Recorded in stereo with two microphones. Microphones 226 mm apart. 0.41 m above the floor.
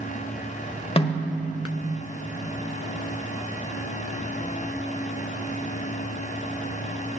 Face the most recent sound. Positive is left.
turn(degrees=25)  # may be behind; listen again after turning